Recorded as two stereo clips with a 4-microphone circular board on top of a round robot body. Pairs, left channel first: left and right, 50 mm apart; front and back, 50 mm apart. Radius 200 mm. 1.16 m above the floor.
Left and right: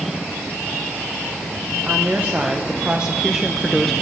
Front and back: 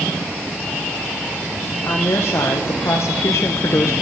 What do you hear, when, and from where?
1.9 s a woman speaking: 25° right, 1.8 m; by 3.9 s 5° left, 0.8 m